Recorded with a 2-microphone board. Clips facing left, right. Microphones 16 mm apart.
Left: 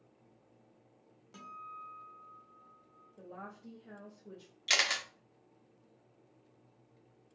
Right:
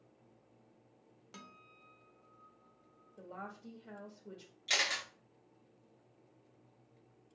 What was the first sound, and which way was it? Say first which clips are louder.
A guitar: left 9 dB; 35° right (ahead or behind).